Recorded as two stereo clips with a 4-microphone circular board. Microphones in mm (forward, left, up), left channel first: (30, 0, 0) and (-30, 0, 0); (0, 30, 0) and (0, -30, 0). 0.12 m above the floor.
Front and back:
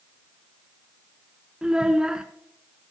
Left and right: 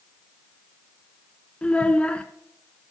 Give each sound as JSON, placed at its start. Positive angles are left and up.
{"t": 1.6, "sound": "a child speaking", "azimuth_deg": 125, "distance_m": 0.6}